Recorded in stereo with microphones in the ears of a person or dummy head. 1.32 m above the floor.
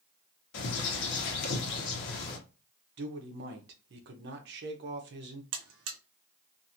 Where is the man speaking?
50° right (ahead or behind), 0.7 m.